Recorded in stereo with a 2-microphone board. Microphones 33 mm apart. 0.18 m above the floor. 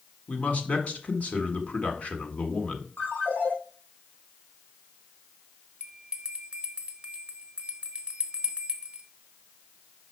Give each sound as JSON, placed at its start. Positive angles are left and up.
{"t": 0.3, "sound": "a man speaking", "side_deg": 40, "distance_m": 1.6}
{"t": 3.0, "sound": "a ringtone", "side_deg": 60, "distance_m": 4.0}
{"t": 5.8, "sound": "a bell", "side_deg": -35, "distance_m": 1.2}